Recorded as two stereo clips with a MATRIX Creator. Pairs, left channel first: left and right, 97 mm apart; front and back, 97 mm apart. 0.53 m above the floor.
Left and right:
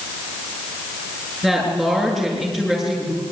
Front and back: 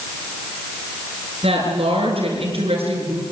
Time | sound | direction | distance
1.4 | a woman speaking | 175° left | 7.5 m